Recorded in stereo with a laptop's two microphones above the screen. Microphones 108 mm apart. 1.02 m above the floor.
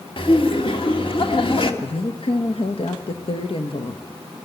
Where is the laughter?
55° left (ahead or behind), 1.9 m.